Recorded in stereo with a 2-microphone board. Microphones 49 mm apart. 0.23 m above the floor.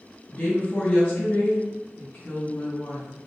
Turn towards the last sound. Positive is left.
turn(degrees=40)  # may be behind; listen again after turning